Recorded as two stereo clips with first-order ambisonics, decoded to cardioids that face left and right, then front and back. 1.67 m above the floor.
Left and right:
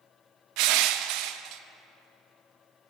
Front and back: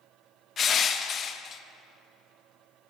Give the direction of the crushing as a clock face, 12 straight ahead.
2 o'clock.